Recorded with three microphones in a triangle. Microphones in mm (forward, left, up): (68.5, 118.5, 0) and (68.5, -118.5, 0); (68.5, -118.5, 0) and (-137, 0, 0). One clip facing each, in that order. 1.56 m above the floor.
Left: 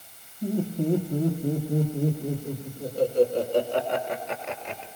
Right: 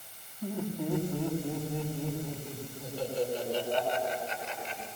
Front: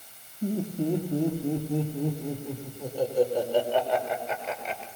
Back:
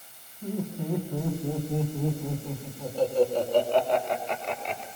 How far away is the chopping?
No chopping in this recording.